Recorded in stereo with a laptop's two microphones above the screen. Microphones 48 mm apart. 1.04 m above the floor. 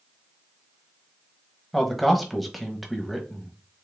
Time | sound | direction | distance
1.7 | a man speaking | centre (ahead or behind) | 1.1 m